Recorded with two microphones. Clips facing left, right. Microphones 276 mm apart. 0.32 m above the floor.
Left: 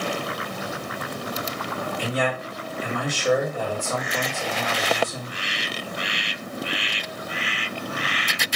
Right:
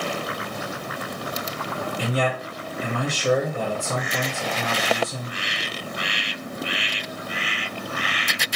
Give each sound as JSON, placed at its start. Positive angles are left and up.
{"t": 2.0, "sound": "a man speaking", "side_deg": -35, "distance_m": 1.8}